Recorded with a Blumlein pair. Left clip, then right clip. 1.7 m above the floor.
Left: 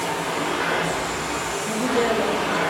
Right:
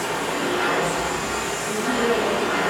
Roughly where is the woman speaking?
Ahead left.